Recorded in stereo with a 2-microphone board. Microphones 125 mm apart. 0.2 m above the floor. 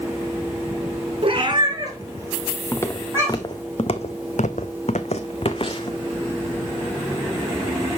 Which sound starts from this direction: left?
Footsteps, at 2.7 s.